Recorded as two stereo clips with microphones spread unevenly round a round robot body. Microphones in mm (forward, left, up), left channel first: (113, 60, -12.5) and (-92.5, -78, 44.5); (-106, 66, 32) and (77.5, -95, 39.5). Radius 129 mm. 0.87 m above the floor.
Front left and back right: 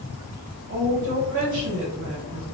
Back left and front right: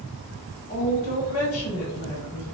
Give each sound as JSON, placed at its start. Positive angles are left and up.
{"t": 0.7, "sound": "a woman speaking", "azimuth_deg": -170, "distance_m": 1.1}